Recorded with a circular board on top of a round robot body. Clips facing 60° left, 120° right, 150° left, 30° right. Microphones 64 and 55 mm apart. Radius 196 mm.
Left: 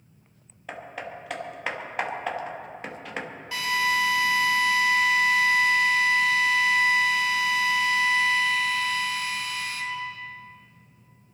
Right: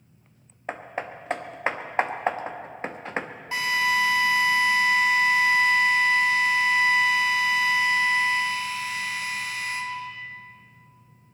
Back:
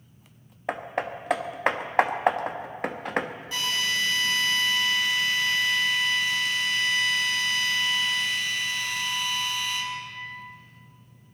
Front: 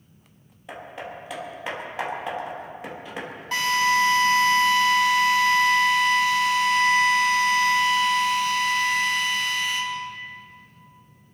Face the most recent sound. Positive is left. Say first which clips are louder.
# right 1 dB, front 8 dB
turn(degrees=-65)